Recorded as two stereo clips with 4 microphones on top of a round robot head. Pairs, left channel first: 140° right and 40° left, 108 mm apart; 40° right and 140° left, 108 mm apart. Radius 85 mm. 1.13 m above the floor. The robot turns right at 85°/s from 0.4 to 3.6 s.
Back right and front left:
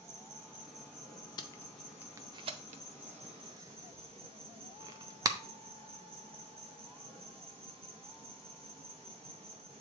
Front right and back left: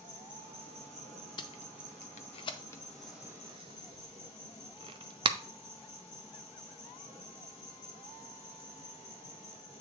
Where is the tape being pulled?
90° right, 0.6 m; by 5.4 s 100° left, 0.6 m.